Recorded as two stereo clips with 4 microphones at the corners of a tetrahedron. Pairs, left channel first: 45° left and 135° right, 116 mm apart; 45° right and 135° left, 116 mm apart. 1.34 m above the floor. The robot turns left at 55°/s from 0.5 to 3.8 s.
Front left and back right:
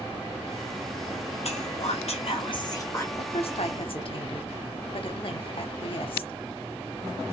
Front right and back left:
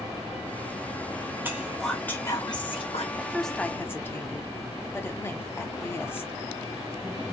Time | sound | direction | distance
1.4 | whispering | 65° left | 0.6 m
3.1 | a woman speaking | 55° left | 0.8 m